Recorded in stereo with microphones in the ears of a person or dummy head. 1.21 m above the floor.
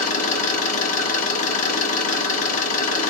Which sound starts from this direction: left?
An engine running, at 0.0 s.